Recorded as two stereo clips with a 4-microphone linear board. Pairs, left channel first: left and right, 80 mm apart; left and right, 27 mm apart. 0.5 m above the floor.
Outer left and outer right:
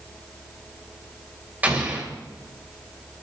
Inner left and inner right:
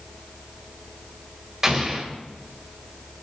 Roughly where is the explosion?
Centre.